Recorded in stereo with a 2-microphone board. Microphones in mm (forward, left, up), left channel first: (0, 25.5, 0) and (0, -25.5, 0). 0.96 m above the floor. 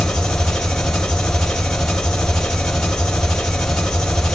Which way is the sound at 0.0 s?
15° left (ahead or behind).